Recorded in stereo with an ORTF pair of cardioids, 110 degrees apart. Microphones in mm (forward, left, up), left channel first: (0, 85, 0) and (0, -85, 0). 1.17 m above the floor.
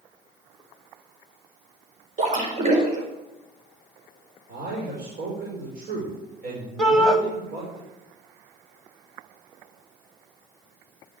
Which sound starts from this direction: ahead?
A shout, at 6.8 s.